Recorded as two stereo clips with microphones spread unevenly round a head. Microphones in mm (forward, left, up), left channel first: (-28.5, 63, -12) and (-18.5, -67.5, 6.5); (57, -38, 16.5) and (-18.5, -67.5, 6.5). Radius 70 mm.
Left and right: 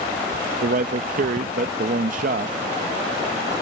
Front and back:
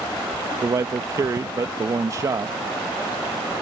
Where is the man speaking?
110° right.